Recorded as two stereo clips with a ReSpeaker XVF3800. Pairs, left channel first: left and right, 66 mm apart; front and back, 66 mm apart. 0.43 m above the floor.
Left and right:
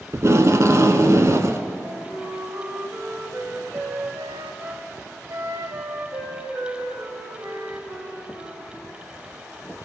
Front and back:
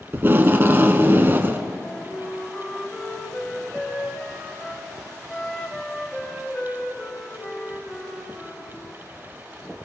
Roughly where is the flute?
Right.